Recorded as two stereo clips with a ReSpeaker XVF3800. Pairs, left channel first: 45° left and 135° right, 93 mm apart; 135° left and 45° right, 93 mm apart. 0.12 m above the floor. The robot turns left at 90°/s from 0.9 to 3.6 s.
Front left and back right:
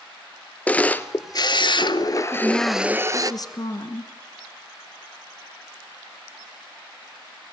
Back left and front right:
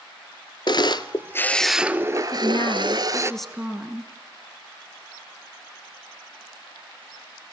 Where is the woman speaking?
150° left, 1.8 m; by 4.1 s 30° left, 1.8 m.